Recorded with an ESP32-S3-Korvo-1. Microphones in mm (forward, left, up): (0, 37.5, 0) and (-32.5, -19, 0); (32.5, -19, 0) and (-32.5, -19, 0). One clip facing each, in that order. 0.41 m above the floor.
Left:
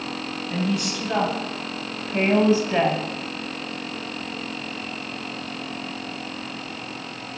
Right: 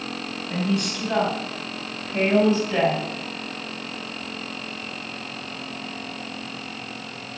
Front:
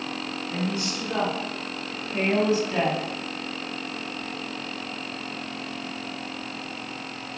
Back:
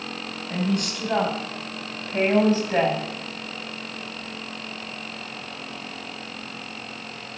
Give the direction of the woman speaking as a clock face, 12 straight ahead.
7 o'clock.